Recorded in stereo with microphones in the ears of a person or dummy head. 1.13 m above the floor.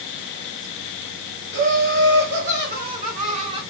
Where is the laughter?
55° right (ahead or behind), 1.5 m; by 3.6 s 20° right (ahead or behind), 0.7 m.